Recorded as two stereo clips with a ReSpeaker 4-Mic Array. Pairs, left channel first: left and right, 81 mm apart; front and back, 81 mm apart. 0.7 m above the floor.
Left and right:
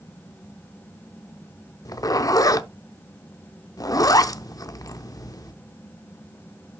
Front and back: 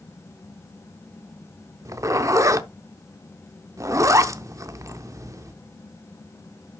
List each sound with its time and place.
1.9 s a zipper: 130° left, 0.6 m